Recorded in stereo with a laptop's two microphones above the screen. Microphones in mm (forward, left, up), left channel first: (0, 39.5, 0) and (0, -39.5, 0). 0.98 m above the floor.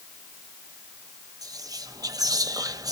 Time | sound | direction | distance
1.4 | whispering | 50° right (ahead or behind) | 0.6 m